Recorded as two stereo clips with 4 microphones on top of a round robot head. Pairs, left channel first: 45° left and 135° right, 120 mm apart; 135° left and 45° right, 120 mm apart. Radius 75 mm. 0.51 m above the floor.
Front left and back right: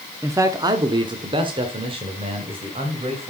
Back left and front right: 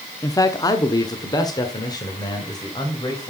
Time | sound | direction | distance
0.2 | a man speaking | 175° left | 0.9 m